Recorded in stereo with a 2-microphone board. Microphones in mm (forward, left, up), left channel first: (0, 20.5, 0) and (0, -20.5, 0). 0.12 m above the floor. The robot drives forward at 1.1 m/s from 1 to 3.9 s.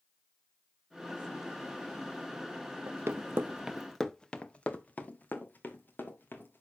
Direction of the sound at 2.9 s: 65° right (ahead or behind).